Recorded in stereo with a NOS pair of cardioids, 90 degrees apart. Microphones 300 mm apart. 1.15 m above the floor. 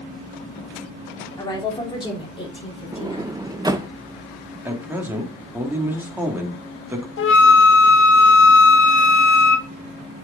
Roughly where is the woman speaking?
Ahead.